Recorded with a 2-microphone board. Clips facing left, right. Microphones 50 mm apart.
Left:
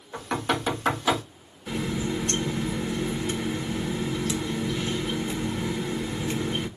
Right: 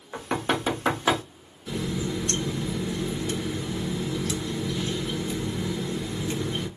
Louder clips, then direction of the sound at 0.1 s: Even; 25° right (ahead or behind).